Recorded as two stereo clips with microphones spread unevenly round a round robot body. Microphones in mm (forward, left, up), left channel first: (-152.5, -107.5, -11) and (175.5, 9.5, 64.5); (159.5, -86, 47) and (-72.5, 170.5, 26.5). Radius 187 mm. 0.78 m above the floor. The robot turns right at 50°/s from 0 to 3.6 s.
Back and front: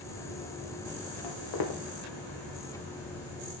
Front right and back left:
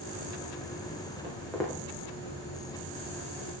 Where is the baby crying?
No baby crying in this recording.